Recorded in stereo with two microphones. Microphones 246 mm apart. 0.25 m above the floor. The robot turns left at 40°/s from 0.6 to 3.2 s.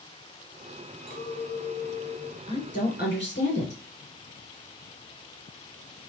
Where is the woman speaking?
20° left (ahead or behind), 3.5 m; by 3.8 s 50° left (ahead or behind), 3.5 m.